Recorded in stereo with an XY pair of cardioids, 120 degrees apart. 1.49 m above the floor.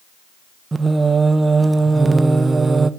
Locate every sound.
0.7 s singing: 20° right, 1.1 m